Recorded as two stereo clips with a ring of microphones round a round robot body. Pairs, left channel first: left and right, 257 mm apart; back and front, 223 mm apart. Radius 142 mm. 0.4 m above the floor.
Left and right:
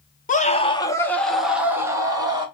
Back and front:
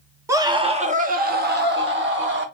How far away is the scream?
About 0.8 m.